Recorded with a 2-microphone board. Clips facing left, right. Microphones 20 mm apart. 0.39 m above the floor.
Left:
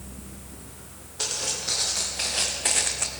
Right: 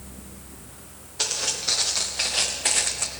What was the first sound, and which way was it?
Footsteps, 30° right (ahead or behind).